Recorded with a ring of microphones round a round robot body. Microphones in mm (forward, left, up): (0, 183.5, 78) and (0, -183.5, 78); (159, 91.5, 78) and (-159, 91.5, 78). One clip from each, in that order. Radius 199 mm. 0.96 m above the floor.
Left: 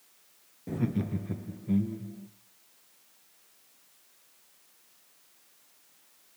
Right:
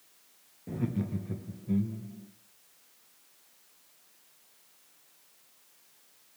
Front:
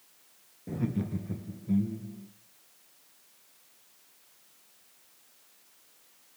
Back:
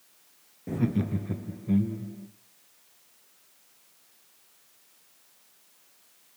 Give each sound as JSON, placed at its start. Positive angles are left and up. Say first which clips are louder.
{"t": 0.7, "sound": "laughter", "louder": "left 2 dB, back 5 dB", "azimuth_deg": 145, "distance_m": 0.8}